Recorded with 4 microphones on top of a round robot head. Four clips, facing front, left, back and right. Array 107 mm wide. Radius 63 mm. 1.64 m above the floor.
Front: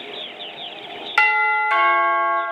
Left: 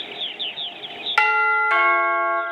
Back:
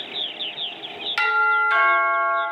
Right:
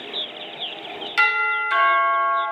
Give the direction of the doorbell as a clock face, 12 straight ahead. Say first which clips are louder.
Left 3 dB, front 1 dB; 10 o'clock.